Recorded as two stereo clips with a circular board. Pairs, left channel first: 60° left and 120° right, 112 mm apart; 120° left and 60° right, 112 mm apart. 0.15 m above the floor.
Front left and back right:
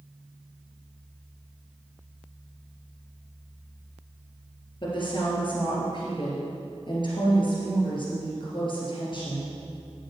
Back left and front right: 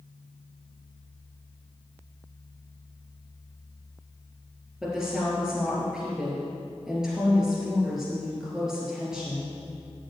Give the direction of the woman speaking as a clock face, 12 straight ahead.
11 o'clock.